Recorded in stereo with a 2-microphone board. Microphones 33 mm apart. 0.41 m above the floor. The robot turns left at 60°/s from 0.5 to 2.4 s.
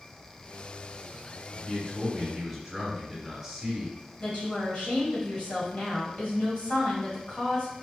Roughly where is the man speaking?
Ahead left.